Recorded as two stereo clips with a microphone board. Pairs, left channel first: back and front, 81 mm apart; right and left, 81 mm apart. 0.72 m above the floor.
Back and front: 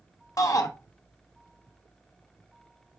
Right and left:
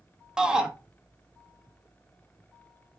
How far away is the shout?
About 0.6 m.